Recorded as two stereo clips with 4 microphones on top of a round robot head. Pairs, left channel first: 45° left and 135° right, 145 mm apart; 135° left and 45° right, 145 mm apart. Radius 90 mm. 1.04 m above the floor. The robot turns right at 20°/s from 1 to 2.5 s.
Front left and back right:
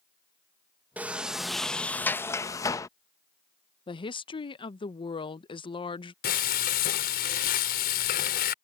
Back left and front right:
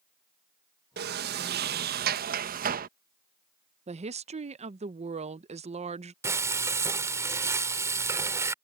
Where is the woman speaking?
5° right.